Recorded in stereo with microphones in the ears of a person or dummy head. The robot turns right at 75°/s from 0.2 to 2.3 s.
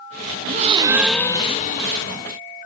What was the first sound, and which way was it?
A gasp, 50° right.